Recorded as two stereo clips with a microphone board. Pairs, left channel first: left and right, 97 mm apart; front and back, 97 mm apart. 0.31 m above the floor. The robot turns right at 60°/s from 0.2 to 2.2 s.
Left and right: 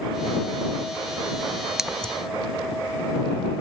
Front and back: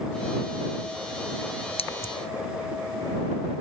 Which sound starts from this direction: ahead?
Scissors, at 1.8 s.